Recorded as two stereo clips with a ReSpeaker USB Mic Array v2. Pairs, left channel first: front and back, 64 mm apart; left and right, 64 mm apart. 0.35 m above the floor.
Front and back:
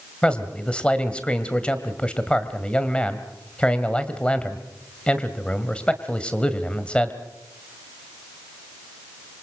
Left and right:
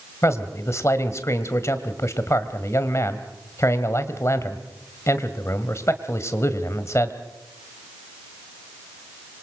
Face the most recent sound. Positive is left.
turn(degrees=70)